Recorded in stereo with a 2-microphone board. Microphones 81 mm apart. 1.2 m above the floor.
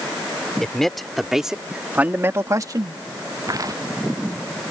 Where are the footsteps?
45° right (ahead or behind).